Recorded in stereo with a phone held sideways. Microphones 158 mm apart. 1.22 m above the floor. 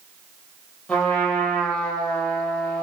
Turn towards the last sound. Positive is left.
turn(degrees=5)  # may be behind; listen again after turning